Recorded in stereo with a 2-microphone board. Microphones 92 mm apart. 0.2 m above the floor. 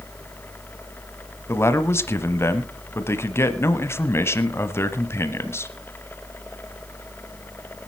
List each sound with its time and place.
1.5 s a man speaking: 25° left (ahead or behind), 1.0 m